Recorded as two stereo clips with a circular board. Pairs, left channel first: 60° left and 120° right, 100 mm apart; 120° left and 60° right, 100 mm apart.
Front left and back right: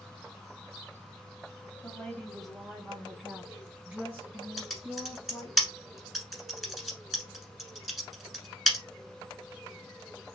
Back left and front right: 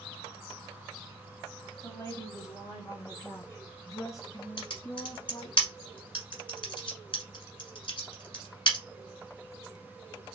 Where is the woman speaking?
120° left, 1.3 m; by 5.6 s 175° left, 3 m.